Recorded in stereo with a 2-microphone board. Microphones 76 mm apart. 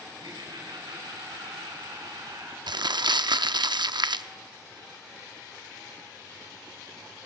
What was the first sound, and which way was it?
Laughter, 80° right.